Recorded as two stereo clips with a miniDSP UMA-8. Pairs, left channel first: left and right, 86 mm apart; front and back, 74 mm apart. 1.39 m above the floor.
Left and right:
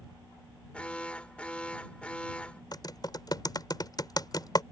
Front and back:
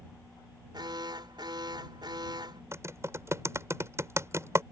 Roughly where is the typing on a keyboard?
Behind left.